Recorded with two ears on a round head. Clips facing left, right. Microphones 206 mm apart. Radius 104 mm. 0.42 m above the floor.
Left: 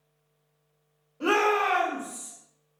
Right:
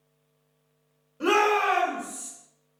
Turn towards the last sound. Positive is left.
turn(degrees=-5)  # may be behind; listen again after turning